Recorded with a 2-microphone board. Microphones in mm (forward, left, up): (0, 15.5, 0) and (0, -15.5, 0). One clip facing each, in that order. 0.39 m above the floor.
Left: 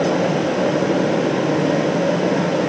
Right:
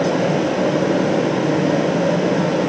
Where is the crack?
I don't hear a crack.